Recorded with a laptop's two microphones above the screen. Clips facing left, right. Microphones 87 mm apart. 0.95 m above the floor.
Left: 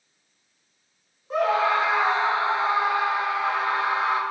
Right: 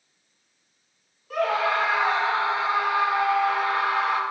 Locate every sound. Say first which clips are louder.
1.3 s a scream: left 2 dB; 25° left (ahead or behind), 1.6 m